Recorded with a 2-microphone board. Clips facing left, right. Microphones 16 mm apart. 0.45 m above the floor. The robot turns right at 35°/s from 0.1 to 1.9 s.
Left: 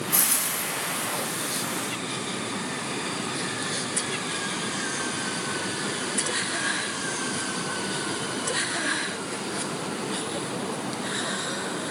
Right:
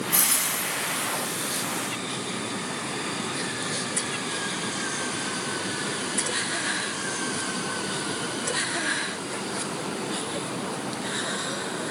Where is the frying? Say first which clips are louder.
Right 1 dB; 165° right, 4 m; by 1.1 s 130° right, 4 m.